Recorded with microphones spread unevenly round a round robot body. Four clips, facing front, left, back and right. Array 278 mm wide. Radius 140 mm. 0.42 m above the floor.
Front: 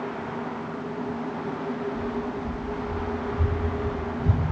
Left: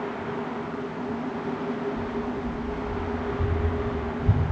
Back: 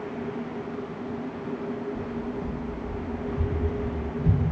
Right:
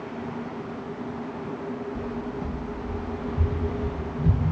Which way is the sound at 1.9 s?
100° right.